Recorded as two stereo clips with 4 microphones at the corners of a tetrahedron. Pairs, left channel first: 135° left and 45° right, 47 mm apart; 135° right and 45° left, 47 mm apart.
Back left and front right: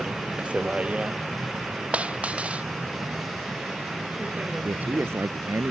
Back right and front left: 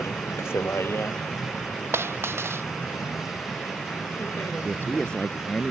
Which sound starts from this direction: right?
A vehicle, at 0.0 s.